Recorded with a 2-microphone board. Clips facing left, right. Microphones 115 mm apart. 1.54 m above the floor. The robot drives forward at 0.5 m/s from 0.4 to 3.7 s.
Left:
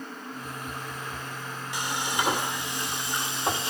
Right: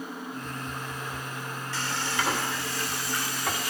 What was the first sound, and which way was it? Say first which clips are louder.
Frying: left 1 dB; 15° left (ahead or behind).